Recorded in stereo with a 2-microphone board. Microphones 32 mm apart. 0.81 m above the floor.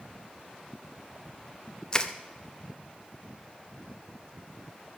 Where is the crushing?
25° left (ahead or behind), 0.7 m.